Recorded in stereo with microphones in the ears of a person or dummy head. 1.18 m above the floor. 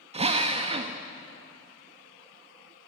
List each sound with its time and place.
0.1 s a drill: 30° right (ahead or behind), 1.1 m